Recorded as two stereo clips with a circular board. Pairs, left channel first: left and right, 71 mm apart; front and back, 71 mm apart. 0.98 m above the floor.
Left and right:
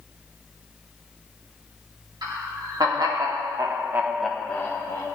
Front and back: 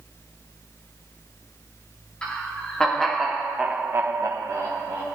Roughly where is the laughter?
Right.